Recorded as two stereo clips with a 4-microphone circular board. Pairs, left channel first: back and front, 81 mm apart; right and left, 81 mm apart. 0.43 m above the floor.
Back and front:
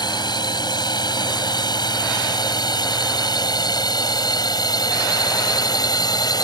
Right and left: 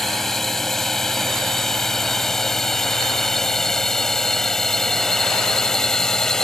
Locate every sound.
0.0 s a drone: 175° right; by 6.4 s 170° right